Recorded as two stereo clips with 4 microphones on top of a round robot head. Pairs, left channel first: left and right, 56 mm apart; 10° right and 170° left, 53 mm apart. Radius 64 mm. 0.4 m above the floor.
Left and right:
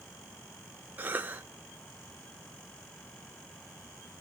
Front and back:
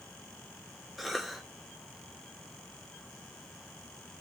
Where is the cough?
105° right, 1.1 m.